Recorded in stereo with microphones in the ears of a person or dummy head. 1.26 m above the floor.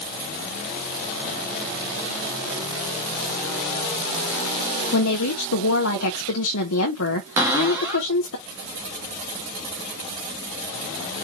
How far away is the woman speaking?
About 1.1 m.